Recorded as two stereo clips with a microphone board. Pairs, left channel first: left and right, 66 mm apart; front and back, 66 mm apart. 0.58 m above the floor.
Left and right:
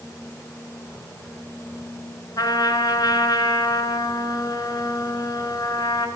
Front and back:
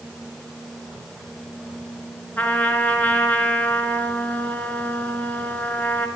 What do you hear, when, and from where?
2.4 s a trumpet: 70° left, 1.7 m